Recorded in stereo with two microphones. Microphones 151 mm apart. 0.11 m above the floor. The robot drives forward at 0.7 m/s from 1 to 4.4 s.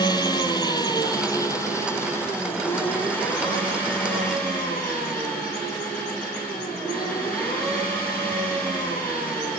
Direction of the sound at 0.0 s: 30° left (ahead or behind).